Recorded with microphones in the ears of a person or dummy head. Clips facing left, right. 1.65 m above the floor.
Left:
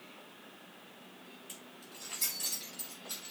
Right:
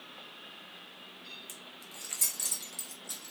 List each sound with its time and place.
1.5 s keys jangling: 20° right (ahead or behind), 0.9 m; by 3.3 s 50° right (ahead or behind), 1.3 m